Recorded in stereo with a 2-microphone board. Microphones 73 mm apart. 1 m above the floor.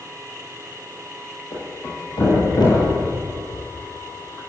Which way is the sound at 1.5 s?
75° left (ahead or behind).